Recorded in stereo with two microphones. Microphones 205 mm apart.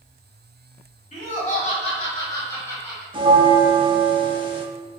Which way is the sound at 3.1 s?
25° right (ahead or behind).